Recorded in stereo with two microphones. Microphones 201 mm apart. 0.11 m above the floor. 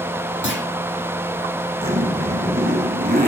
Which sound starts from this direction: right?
A zipper, at 1.8 s.